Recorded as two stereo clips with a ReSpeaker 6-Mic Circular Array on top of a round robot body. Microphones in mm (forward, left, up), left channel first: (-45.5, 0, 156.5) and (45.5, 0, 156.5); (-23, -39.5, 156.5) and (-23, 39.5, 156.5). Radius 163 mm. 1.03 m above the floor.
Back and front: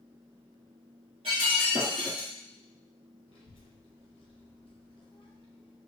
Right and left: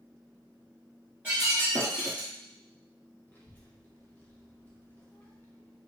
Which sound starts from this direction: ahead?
Breaking glass, at 1.2 s.